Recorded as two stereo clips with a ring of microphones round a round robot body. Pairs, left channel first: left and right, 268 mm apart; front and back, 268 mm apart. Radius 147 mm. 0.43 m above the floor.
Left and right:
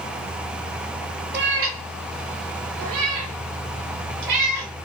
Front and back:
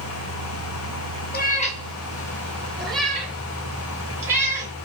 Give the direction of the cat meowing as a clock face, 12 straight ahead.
2 o'clock.